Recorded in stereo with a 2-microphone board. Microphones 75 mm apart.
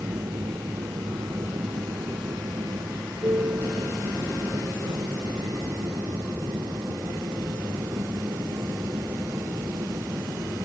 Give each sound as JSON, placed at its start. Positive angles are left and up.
{"t": 0.0, "sound": "an aircraft", "side_deg": -60}